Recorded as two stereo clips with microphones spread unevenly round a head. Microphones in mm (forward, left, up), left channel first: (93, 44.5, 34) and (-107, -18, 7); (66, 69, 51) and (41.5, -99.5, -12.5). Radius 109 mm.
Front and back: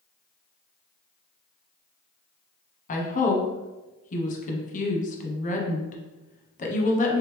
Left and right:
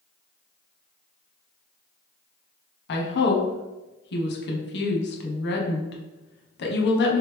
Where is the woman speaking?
70° left, 0.8 m.